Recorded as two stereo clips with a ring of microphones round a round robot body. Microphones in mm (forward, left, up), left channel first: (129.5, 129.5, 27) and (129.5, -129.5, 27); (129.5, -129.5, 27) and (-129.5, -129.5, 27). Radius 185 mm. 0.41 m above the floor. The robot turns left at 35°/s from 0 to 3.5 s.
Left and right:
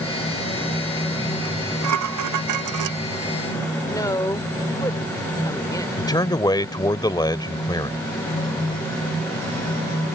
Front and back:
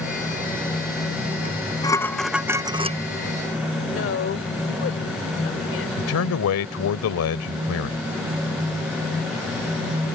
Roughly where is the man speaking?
Ahead.